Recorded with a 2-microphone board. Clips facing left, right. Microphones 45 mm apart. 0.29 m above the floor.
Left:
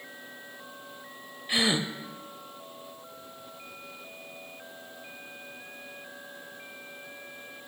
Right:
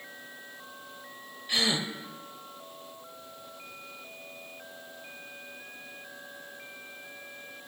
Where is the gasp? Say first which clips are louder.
Left 2 dB; 20° left (ahead or behind), 0.6 m.